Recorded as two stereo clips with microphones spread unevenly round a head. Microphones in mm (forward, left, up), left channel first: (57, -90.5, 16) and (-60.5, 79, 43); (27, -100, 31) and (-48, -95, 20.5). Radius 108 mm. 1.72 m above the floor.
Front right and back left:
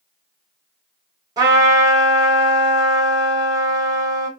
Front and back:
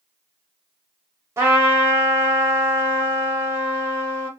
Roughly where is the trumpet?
Behind left.